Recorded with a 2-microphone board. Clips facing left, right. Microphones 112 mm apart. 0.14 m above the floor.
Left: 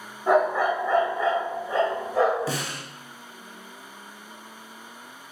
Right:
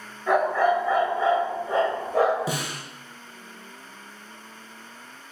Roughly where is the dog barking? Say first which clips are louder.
Even; left.